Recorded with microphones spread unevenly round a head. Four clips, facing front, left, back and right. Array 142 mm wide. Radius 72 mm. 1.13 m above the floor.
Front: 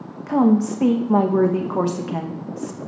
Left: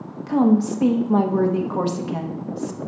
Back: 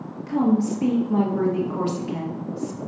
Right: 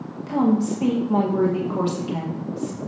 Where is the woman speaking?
15° left, 1.4 m.